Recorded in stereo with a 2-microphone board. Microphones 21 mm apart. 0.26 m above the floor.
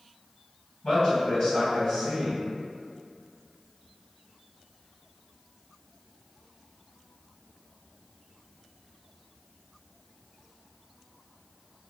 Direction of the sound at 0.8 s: 40° left (ahead or behind).